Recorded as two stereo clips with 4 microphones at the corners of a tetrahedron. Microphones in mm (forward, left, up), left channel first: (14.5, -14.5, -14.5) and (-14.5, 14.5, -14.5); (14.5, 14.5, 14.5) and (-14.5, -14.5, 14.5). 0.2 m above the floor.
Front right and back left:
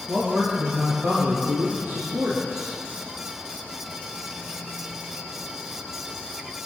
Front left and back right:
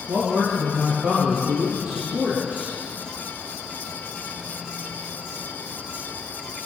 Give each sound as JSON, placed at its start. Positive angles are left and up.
{"t": 0.1, "sound": "a man speaking", "azimuth_deg": -165, "distance_m": 5.0}